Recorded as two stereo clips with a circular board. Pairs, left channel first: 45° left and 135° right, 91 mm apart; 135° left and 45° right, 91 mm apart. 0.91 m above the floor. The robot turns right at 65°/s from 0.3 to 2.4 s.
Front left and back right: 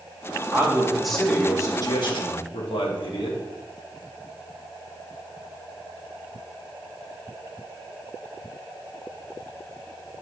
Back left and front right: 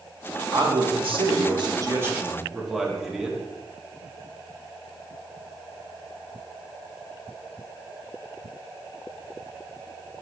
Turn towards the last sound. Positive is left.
turn(degrees=40)